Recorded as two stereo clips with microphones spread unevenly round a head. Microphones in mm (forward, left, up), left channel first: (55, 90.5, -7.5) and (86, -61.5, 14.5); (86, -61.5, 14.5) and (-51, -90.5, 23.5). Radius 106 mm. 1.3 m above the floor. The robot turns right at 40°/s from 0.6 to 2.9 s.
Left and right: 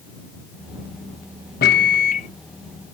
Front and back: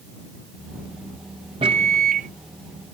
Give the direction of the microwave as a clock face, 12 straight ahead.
8 o'clock.